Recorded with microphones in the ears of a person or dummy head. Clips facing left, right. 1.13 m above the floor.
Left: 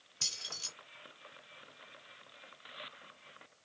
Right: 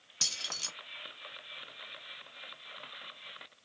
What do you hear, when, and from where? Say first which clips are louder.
0.2 s keys jangling: right 4 dB; 80° right, 1.1 m